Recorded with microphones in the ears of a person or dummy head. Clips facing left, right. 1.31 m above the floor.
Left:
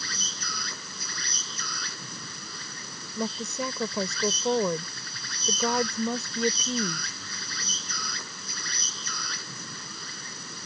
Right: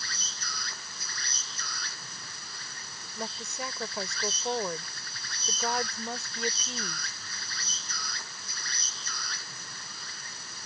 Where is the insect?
70° left (ahead or behind).